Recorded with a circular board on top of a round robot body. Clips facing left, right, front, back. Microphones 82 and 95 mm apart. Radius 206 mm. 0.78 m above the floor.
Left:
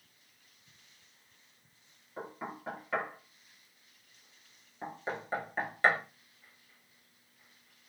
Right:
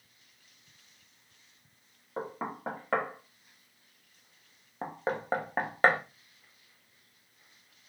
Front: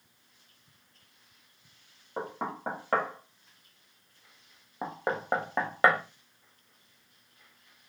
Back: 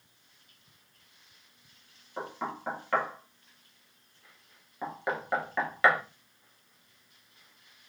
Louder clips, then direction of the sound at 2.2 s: Right 5 dB, front 1 dB; 50° right.